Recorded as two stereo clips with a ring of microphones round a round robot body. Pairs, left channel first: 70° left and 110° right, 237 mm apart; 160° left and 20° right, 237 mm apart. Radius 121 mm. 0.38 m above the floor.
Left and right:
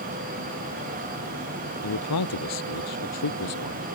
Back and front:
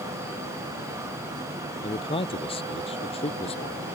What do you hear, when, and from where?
1.8 s a man speaking: 90° left